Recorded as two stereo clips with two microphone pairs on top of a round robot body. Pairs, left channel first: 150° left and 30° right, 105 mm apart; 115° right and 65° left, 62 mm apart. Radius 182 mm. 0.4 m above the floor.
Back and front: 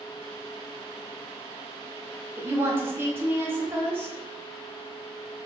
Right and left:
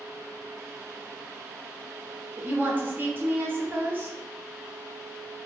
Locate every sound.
2.4 s a woman speaking: 25° left, 1.7 m